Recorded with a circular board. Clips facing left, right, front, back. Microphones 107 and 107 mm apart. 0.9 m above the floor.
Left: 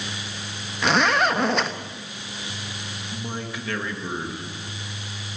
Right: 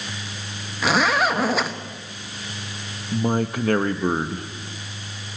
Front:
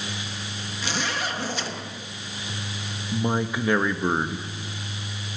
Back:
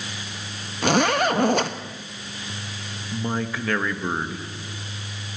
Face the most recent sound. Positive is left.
turn(degrees=-70)